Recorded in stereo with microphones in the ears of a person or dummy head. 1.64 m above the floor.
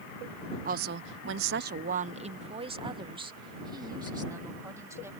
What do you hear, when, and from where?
0.7 s a woman speaking: 45° right (ahead or behind); by 5.1 s 20° right (ahead or behind)